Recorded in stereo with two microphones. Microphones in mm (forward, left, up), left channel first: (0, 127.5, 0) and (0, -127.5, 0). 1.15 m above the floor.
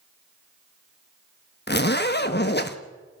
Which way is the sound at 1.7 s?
40° left (ahead or behind).